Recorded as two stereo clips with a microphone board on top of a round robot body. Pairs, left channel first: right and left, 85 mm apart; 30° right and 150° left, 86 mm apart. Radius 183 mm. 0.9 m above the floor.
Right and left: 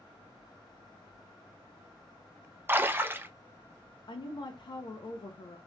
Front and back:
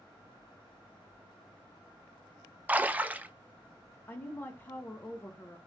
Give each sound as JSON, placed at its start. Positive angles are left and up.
{"t": 2.7, "sound": "a splash", "azimuth_deg": 110, "distance_m": 0.6}
{"t": 4.1, "sound": "a woman speaking", "azimuth_deg": -90, "distance_m": 0.6}